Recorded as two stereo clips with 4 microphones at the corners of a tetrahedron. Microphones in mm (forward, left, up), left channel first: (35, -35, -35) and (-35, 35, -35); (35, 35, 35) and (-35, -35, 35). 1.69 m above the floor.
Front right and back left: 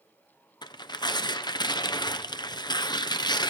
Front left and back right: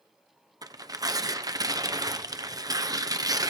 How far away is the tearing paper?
About 0.8 m.